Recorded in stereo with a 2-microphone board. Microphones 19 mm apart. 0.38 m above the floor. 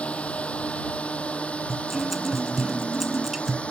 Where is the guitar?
15° right (ahead or behind).